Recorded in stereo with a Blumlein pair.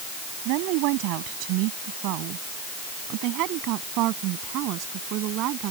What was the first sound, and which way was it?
A woman speaking, 45° right.